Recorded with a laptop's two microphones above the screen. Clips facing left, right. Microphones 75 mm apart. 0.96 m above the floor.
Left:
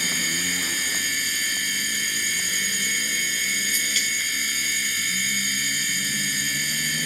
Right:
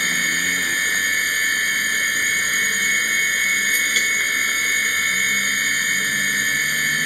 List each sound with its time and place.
0.0 s a machine running: 45° right (ahead or behind)